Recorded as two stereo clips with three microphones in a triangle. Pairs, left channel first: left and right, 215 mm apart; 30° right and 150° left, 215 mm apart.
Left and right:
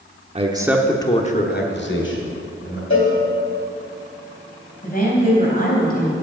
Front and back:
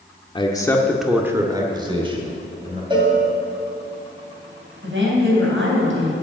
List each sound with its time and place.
0.3 s a man speaking: 75° right, 1.0 m; by 2.8 s 90° left, 2.5 m
2.9 s a cowbell: 85° left, 2.5 m
4.8 s a woman speaking: 135° left, 3 m